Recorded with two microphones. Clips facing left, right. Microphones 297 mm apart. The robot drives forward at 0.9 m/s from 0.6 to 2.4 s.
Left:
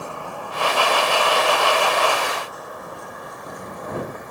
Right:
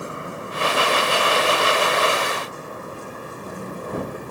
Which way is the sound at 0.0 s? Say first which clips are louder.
Right 1 dB; 20° right (ahead or behind).